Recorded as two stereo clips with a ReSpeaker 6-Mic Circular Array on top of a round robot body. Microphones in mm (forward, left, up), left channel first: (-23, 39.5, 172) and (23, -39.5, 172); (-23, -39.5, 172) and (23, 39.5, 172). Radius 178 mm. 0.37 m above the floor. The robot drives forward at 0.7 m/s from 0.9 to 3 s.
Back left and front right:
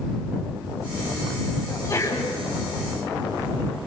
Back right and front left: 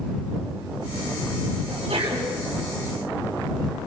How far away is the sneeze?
About 5 m.